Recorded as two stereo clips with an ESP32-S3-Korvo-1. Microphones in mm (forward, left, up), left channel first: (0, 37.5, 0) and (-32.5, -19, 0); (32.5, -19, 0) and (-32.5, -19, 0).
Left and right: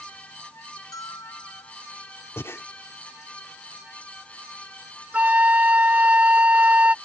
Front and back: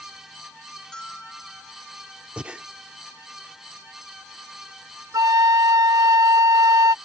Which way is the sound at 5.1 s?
175° left.